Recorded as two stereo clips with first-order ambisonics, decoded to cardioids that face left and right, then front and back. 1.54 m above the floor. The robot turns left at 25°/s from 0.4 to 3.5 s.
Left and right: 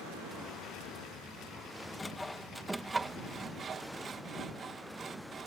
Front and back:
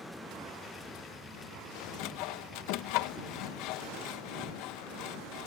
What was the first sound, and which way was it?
Sawing, 10° left.